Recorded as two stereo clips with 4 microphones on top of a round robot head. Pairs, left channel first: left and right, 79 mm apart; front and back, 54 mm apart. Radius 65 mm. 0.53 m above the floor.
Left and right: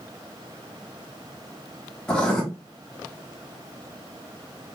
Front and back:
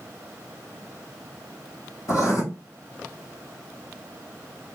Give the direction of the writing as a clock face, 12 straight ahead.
12 o'clock.